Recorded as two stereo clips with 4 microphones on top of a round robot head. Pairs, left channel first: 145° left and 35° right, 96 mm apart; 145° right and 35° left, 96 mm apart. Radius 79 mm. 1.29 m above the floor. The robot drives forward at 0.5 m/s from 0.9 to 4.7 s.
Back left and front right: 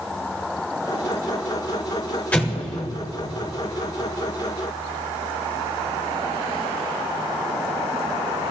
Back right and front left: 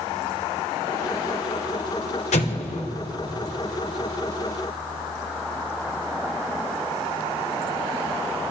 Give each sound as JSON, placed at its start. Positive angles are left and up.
{"t": 2.3, "sound": "an explosion", "azimuth_deg": -140, "distance_m": 1.6}